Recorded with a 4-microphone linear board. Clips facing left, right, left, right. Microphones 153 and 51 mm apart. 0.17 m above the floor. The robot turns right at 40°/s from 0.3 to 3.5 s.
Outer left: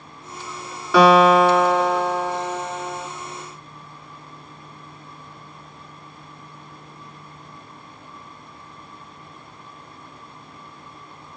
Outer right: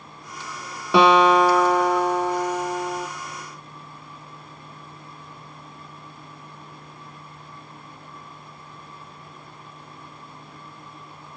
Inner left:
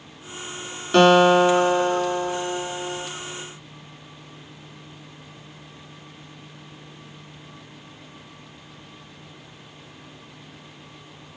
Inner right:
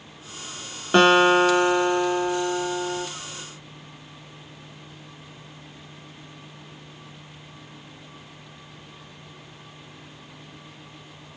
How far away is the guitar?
About 0.9 m.